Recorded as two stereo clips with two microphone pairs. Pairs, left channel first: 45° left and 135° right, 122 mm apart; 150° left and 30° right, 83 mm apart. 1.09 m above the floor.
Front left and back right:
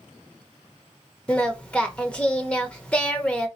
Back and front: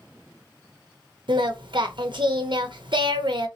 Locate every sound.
1.3 s singing: 35° right, 0.7 m